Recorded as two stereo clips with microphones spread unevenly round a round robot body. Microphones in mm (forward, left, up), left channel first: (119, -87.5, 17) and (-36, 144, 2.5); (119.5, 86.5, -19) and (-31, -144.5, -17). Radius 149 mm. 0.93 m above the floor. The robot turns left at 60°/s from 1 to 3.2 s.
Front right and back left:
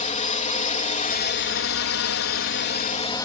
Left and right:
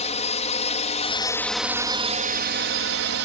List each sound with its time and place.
0.0 s a drone: straight ahead; by 3.3 s 130° right